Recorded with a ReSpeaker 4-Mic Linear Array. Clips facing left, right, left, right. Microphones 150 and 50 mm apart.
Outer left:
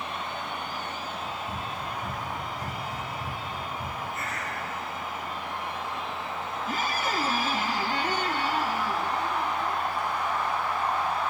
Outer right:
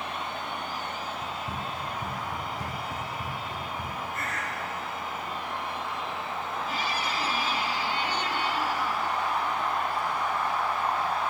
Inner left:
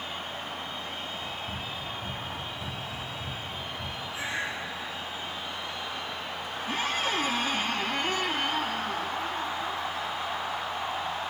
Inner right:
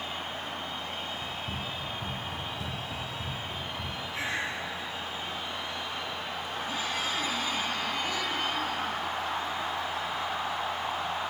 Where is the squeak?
45° left (ahead or behind), 1.1 m.